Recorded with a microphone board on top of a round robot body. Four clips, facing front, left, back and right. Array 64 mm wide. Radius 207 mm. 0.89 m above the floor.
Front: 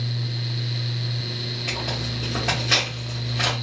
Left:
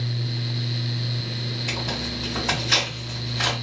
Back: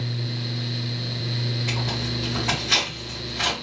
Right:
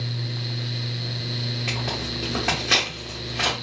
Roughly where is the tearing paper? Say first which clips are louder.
Left 1 dB, back 1 dB; right.